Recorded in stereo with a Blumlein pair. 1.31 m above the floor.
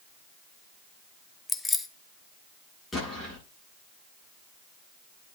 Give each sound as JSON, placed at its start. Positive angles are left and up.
{"t": 1.5, "sound": "keys jangling", "azimuth_deg": 15, "distance_m": 0.8}
{"t": 2.9, "sound": "an explosion", "azimuth_deg": 15, "distance_m": 9.5}